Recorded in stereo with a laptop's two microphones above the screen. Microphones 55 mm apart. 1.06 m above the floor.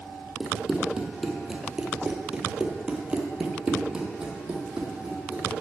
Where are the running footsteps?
5° right (ahead or behind), 1.5 m; by 5.5 s 15° right (ahead or behind), 1.9 m.